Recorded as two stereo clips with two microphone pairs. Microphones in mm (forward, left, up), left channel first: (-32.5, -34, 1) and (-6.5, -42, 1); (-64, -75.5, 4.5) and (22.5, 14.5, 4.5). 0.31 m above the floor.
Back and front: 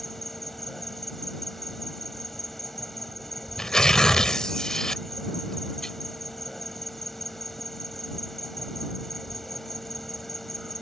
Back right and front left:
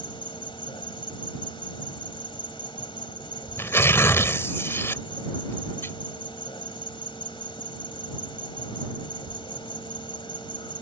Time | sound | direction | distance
0.0 | an insect | 115° right | ?
3.6 | tearing paper | 170° right | ?